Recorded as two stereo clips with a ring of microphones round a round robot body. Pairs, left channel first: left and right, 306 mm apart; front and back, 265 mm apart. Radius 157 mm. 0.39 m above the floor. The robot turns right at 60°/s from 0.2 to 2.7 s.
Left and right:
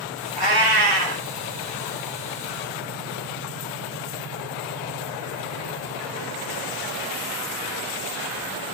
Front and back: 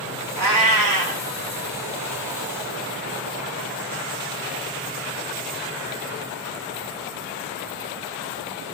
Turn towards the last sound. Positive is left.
turn(degrees=-35)